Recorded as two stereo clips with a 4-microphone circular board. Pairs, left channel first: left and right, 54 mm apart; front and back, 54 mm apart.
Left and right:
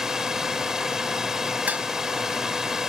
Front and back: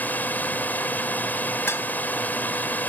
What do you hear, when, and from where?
0.0 s a drone: 15° right
1.7 s dishes clattering: 35° right